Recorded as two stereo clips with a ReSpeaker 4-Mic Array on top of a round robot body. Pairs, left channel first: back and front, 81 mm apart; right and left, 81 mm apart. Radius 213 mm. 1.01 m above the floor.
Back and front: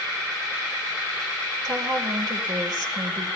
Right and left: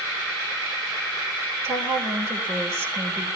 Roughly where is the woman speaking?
Ahead left.